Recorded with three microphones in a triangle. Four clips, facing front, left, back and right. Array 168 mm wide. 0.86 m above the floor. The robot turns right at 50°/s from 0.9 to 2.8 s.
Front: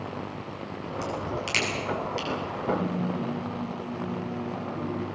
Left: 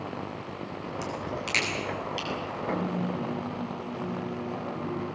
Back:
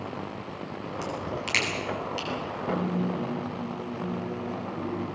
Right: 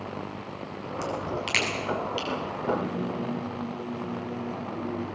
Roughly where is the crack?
Right.